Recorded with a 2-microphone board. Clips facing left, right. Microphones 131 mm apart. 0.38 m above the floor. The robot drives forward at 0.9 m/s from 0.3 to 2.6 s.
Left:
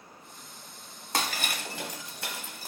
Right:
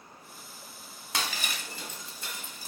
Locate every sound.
1.1 s breaking glass: 45° left (ahead or behind), 1.3 m; by 2.7 s 60° left (ahead or behind), 1.1 m